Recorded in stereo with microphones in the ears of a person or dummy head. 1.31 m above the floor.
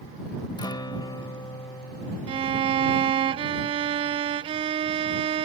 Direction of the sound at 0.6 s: 20° left (ahead or behind).